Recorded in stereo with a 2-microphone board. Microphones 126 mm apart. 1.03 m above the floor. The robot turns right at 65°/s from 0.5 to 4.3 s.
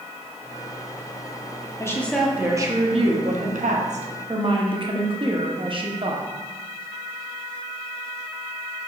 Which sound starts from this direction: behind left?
A woman speaking, at 1.8 s.